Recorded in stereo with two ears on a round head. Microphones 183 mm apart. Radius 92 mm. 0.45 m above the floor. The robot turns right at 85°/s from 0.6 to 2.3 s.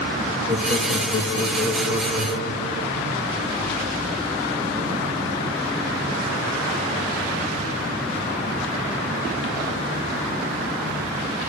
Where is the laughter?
85° left, 5 m; by 3.0 s 130° right, 5 m.